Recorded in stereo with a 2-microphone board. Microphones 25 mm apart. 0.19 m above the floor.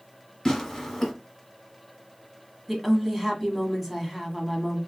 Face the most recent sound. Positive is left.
turn(degrees=-5)  # may be behind; listen again after turning